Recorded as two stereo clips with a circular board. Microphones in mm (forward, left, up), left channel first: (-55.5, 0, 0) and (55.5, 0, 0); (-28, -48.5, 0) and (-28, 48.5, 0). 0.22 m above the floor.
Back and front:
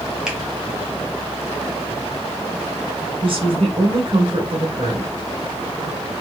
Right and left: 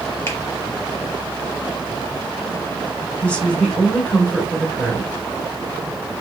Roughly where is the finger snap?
Right.